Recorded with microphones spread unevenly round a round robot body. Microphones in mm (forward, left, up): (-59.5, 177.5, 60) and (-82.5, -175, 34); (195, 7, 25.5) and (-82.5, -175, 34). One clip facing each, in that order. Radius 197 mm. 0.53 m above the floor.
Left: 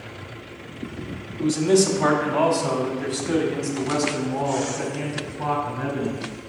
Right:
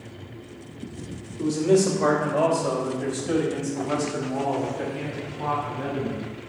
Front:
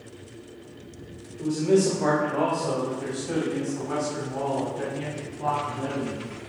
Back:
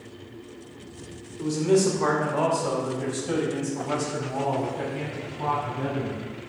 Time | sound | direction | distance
1.4 | a man speaking | 150° left | 2 m